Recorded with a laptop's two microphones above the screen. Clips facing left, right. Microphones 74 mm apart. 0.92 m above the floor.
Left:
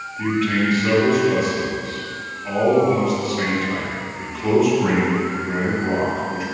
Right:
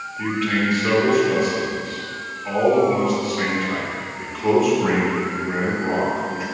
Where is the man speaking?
Centre (ahead or behind), 1.9 m.